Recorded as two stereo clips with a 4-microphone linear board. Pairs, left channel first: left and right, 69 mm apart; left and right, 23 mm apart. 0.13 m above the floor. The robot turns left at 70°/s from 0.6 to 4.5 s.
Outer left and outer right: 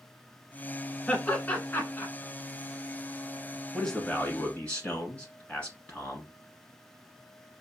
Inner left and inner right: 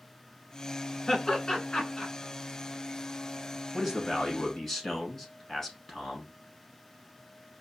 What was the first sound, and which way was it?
Laughter, 10° left (ahead or behind).